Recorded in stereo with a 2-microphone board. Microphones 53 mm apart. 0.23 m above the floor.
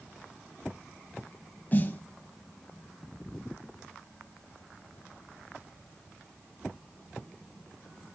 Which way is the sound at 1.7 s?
35° left (ahead or behind).